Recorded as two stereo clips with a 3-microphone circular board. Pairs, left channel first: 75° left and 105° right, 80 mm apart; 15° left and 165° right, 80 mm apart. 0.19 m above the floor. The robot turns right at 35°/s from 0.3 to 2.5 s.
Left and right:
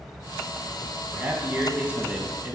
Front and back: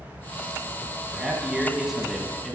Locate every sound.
1.1 s a man speaking: 120° right, 1.0 m; by 2.5 s 70° right, 1.0 m